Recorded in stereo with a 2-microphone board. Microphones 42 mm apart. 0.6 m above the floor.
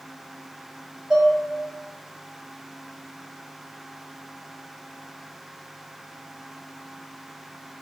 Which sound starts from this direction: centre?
Dishes clattering, at 1.1 s.